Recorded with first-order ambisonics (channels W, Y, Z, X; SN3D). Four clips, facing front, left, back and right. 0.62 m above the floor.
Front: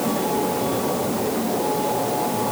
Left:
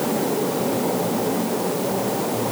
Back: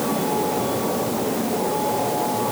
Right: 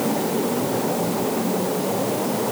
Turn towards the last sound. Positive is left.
No sound to turn to.